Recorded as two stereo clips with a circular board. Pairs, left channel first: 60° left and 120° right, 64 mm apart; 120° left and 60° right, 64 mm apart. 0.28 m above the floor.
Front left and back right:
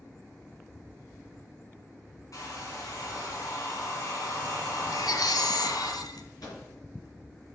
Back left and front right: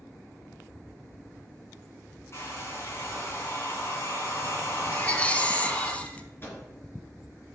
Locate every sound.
2.3 s a hair dryer: 80° left, 3.5 m
4.9 s a baby crying: 50° left, 0.8 m
6.4 s a microwave: 70° left, 4 m